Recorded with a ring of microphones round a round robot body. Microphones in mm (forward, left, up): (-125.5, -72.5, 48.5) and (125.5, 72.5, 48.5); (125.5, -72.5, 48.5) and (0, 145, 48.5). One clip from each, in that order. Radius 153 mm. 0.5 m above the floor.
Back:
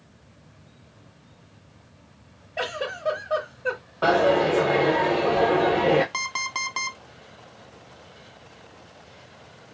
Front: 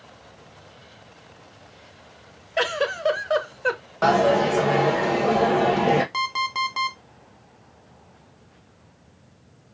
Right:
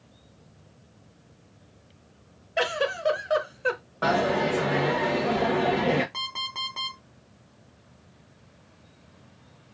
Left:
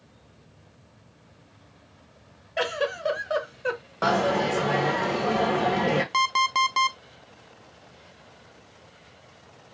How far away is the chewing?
I don't hear chewing.